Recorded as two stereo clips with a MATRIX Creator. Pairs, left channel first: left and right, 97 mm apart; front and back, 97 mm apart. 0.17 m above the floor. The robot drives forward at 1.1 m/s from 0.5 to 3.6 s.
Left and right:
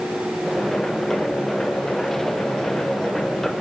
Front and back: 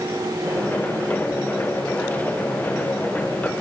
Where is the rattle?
I don't hear a rattle.